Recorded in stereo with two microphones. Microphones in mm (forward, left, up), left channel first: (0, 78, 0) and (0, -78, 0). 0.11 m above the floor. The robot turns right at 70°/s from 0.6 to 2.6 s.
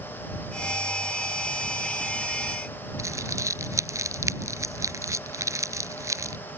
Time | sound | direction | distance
3.0 | crumpling | 20° right (ahead or behind) | ?